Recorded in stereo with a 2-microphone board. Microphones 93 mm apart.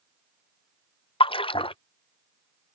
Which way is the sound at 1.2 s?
70° left (ahead or behind).